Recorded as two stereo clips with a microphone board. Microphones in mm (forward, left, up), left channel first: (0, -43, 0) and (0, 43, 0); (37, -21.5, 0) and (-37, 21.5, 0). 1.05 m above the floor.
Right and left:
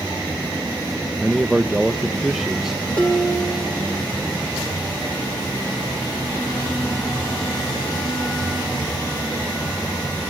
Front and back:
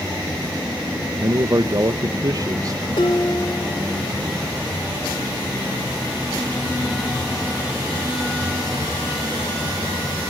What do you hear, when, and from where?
1.2 s a man speaking: 175° left, 0.7 m
3.0 s dishes clattering: 10° right, 2 m